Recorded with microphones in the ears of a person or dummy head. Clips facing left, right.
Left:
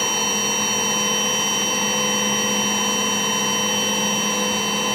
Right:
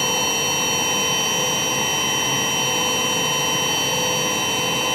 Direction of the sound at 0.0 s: 20° right (ahead or behind).